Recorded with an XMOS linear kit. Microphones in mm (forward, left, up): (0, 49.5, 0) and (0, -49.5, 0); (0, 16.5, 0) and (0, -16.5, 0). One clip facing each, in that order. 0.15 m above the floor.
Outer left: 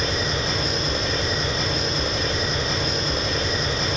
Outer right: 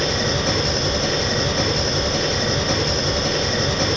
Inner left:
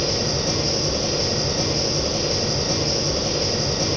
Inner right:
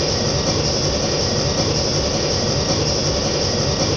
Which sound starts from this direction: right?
An engine running, at 0.0 s.